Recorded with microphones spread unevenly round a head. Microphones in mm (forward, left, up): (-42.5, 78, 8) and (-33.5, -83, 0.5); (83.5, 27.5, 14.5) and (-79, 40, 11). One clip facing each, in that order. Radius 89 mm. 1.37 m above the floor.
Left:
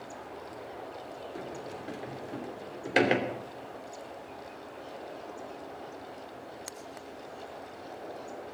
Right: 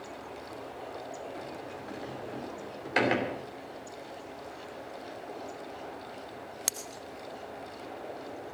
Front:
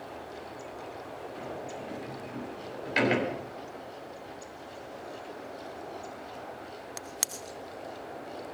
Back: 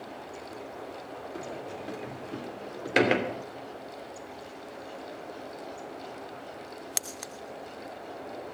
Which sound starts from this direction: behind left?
A sliding door, at 1.4 s.